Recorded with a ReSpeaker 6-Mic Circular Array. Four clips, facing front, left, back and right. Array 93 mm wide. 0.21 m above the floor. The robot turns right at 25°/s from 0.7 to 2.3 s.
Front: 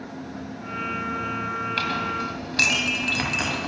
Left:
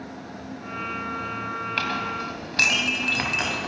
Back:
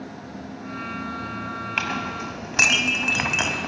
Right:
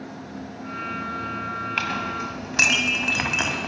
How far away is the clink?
About 0.7 m.